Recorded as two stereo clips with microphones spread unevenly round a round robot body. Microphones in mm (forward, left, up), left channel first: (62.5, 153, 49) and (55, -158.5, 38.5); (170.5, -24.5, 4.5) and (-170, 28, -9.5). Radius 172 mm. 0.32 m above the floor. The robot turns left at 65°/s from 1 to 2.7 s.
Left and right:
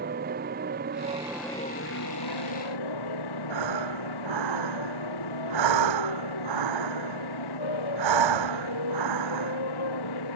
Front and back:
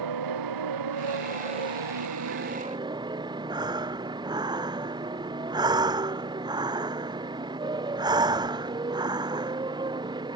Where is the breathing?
110° right.